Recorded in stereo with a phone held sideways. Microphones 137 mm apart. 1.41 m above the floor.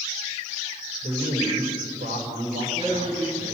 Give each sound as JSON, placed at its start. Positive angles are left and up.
{"t": 1.0, "sound": "a man speaking", "side_deg": -80, "distance_m": 5.5}
{"t": 2.5, "sound": "a man speaking", "side_deg": -45, "distance_m": 9.0}